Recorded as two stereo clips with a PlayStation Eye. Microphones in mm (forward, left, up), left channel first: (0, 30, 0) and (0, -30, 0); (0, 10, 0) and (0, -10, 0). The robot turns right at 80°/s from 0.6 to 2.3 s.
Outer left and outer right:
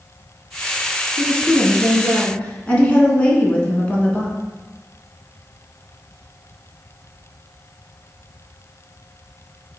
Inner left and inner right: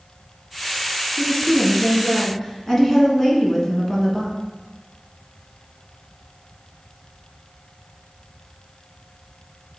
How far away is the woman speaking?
About 1.2 m.